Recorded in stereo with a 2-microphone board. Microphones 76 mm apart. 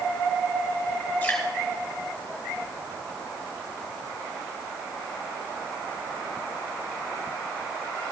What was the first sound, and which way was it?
Dripping, 20° left (ahead or behind).